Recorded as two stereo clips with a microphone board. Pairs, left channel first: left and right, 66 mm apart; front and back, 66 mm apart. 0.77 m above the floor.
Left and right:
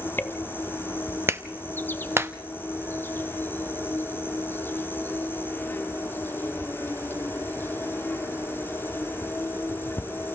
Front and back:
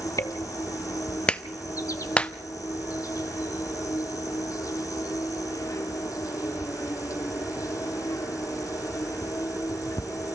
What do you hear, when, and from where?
0.0 s an insect: 30° left, 1.0 m
1.3 s a clap: 65° right, 0.7 m